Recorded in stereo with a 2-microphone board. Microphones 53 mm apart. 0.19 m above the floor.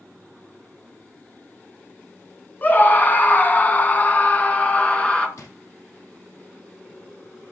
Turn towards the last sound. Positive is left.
turn(degrees=70)  # may be behind; listen again after turning